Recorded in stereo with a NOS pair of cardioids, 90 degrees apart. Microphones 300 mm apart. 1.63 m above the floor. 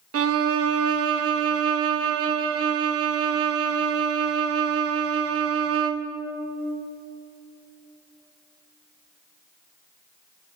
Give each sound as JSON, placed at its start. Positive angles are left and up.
{"t": 0.1, "sound": "a violin", "azimuth_deg": -50, "distance_m": 1.4}